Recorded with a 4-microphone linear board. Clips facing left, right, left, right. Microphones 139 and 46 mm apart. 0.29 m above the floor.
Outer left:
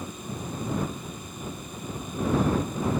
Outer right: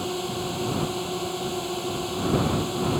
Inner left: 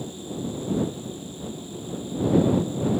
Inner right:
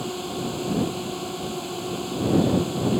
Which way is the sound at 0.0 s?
80° right.